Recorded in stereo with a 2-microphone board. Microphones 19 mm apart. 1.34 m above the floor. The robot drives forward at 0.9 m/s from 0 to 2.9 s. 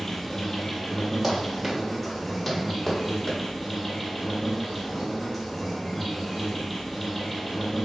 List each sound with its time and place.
0.0 s an insect: 25° left (ahead or behind), 1.3 m; by 7.9 s 10° left (ahead or behind), 3.5 m
1.2 s running footsteps: 30° right (ahead or behind), 2 m; by 3.4 s centre (ahead or behind), 3 m